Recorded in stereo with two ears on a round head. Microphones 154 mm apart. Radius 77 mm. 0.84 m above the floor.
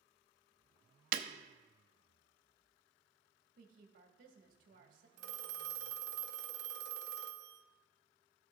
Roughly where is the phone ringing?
Right.